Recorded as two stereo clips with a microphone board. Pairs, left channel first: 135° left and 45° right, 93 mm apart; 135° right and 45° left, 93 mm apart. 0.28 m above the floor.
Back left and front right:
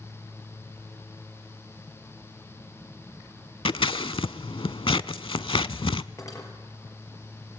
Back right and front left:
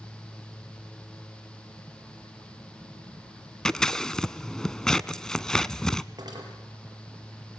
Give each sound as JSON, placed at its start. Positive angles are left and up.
{"t": 3.6, "sound": "scissors", "azimuth_deg": 140, "distance_m": 0.6}
{"t": 6.2, "sound": "cutlery clinking", "azimuth_deg": 85, "distance_m": 4.0}